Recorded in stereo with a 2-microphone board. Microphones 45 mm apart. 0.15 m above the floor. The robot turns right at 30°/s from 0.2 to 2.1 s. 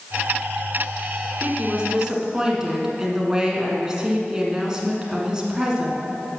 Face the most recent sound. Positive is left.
turn(degrees=-15)  # may be behind; listen again after turning